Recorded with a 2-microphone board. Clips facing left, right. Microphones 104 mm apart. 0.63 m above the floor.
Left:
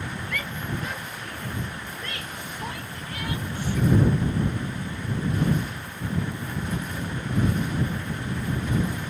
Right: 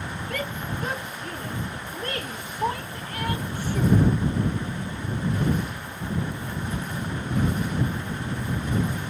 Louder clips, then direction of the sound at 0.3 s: Right 3 dB; 40° right (ahead or behind).